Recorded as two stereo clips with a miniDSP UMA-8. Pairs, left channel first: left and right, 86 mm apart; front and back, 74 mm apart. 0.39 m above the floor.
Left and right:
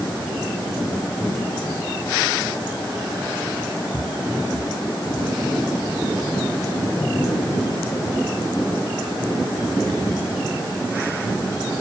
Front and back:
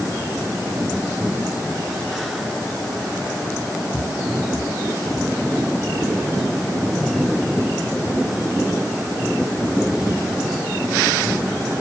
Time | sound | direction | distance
3.9 | footsteps | 45° left | 0.6 m